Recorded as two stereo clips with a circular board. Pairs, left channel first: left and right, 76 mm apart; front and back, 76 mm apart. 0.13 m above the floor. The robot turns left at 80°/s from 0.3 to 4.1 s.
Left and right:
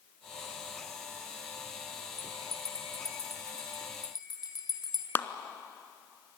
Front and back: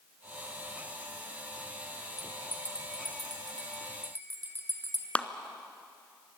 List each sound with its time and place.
2.2 s a bell: 90° right, 2.5 m; by 5.0 s 115° left, 2.5 m
5.2 s a clap: 60° left, 1.1 m